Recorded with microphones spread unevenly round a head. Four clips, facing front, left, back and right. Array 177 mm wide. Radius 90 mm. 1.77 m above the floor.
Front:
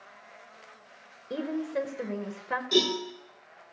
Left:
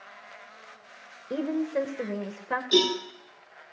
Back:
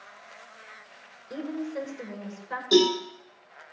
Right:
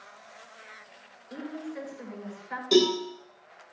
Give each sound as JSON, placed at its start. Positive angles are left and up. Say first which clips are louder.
{"t": 1.3, "sound": "a woman speaking", "louder": "left 10 dB, front 2 dB", "azimuth_deg": 70, "distance_m": 1.9}
{"t": 2.7, "sound": "a cowbell", "louder": "right 3 dB, back 7 dB", "azimuth_deg": -125, "distance_m": 9.0}